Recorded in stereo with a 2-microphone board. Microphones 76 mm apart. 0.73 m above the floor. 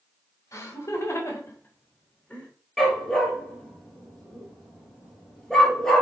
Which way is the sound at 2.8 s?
5° left (ahead or behind).